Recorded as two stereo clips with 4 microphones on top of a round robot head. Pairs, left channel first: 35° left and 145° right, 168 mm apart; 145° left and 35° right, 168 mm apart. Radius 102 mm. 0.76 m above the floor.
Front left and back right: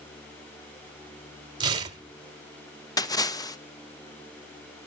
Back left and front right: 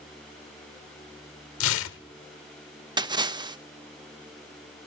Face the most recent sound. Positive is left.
turn(degrees=-5)